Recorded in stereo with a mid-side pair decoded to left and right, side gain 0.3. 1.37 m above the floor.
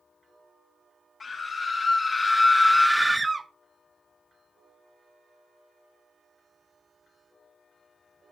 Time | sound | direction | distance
1.2 | a scream | 55° left | 1.8 m